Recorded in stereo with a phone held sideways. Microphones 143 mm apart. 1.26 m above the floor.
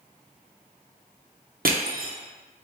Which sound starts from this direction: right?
Crushing, at 1.6 s.